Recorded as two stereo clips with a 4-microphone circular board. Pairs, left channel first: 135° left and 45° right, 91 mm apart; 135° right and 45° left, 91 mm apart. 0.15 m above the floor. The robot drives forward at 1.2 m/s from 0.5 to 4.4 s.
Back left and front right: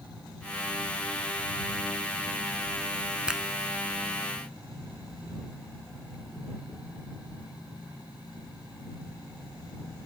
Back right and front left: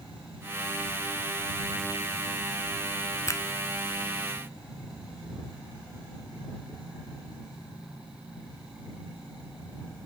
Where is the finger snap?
115° right; by 3.4 s 130° right.